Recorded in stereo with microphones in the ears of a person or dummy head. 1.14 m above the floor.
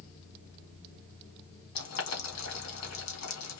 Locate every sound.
1.8 s boiling: 80° left, 2 m